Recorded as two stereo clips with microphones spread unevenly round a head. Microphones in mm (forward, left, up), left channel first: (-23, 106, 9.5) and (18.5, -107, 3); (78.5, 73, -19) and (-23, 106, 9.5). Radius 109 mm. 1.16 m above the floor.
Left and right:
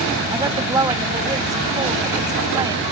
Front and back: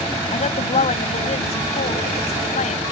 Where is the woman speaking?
5° right.